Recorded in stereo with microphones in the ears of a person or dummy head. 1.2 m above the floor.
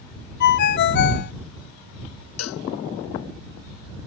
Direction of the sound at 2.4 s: 85° left.